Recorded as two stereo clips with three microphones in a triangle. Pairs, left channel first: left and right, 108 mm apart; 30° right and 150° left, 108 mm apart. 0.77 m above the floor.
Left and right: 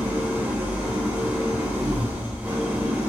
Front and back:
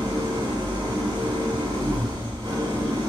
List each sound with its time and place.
0.0 s an engine running: 170° right, 0.9 m